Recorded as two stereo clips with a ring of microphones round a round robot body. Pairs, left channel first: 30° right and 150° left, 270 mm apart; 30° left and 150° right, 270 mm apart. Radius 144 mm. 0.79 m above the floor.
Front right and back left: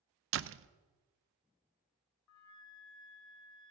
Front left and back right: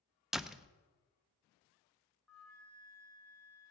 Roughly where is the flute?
Ahead right.